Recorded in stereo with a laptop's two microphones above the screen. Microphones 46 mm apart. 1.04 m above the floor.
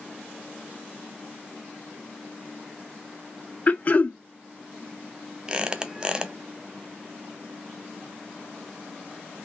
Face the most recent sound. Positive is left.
turn(degrees=-20)  # may be behind; listen again after turning